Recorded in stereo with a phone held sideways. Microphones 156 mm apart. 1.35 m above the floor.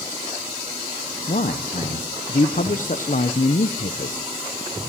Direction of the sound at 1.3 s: 55° left (ahead or behind).